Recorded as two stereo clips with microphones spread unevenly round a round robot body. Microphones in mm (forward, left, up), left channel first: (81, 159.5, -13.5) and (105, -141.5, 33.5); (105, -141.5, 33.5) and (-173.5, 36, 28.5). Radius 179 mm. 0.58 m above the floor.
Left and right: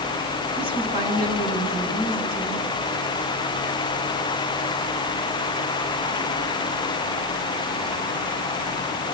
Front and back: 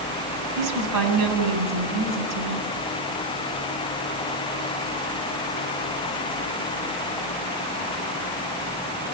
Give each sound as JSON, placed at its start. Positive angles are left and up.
{"t": 0.6, "sound": "a woman speaking", "azimuth_deg": 170, "distance_m": 7.0}